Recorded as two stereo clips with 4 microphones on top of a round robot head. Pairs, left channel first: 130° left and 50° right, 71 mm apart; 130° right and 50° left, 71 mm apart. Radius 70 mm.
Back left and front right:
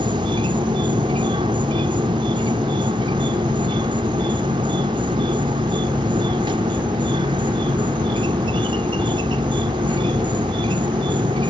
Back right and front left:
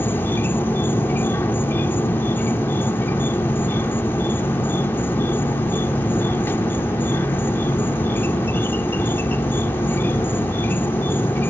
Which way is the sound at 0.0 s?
65° right.